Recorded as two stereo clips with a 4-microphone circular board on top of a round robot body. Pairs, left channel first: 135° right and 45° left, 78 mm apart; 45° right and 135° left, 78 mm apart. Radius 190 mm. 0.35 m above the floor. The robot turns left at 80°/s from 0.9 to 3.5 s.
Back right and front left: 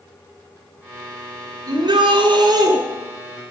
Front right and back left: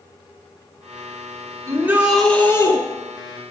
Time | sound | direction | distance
1.7 | a shout | 85° left | 6.5 m